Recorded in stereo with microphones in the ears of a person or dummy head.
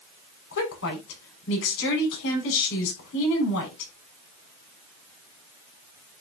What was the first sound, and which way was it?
A woman speaking, 65° left (ahead or behind).